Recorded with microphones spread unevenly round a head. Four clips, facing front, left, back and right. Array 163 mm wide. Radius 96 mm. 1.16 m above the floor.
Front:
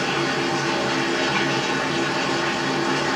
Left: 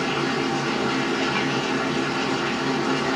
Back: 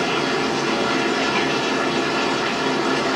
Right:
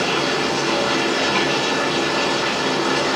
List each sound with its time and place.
0.0 s running water: 175° right, 2.0 m